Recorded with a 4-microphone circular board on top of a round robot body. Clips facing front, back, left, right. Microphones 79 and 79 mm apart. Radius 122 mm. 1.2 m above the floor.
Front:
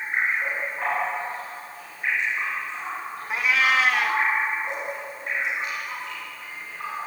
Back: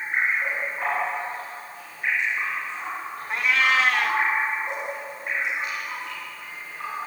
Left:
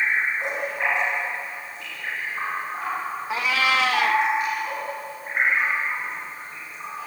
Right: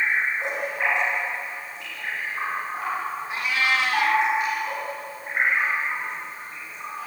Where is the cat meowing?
90° left, 0.5 m.